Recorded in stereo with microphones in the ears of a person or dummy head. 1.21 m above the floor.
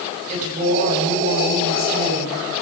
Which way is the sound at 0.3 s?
40° right (ahead or behind).